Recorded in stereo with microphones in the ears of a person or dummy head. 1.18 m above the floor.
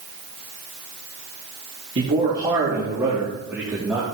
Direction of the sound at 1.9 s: 35° right (ahead or behind).